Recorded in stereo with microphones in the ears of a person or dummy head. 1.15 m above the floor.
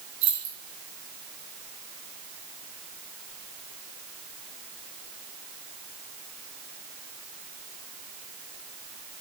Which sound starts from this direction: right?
Keys jangling, at 0.2 s.